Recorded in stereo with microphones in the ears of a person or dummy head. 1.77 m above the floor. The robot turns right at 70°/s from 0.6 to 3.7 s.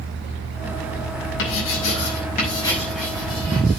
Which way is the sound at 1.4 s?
70° left (ahead or behind).